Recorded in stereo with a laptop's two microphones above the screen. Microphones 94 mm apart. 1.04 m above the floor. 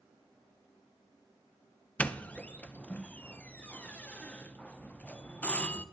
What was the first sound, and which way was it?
A doorbell, 15° left (ahead or behind).